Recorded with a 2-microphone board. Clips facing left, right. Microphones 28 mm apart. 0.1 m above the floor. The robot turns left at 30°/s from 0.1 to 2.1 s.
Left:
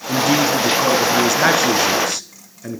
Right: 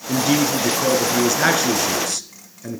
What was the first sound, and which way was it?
A man speaking, 10° right (ahead or behind).